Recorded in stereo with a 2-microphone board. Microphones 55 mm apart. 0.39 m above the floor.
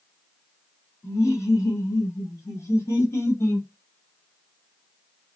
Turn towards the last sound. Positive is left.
turn(degrees=50)  # may be behind; listen again after turning